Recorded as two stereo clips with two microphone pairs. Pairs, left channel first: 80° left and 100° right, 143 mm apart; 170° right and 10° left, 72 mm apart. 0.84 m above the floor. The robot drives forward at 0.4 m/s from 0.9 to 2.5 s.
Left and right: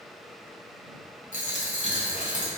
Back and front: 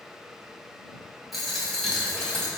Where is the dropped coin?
100° left, 2 m; by 2.5 s 115° left, 2.5 m.